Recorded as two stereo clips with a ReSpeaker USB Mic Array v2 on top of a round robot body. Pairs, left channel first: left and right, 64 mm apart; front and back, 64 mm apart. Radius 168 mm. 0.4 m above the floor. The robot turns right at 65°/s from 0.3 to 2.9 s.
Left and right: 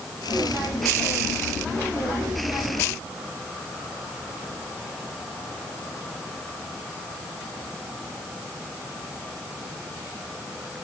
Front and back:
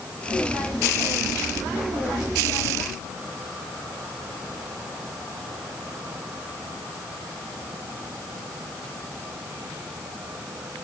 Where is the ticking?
No ticking in this recording.